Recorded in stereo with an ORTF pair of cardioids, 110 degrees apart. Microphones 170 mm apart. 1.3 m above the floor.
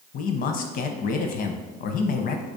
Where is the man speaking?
60° left, 0.6 m.